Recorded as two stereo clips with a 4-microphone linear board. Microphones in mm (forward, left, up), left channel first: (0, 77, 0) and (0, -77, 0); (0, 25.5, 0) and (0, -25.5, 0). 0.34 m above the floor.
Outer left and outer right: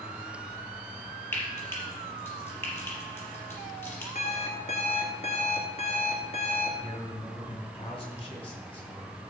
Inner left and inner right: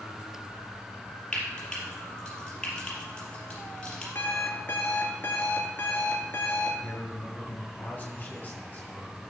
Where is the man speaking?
30° left (ahead or behind), 4 m.